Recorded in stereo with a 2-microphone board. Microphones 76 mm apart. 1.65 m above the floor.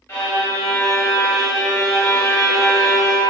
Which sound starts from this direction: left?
A violin, at 0.1 s.